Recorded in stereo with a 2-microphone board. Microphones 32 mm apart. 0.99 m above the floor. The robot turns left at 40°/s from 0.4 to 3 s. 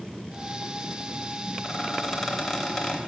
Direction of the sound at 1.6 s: 155° right.